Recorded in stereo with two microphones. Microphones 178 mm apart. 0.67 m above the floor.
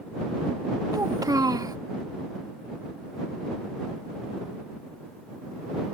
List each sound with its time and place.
0.9 s a child speaking: 20° right (ahead or behind)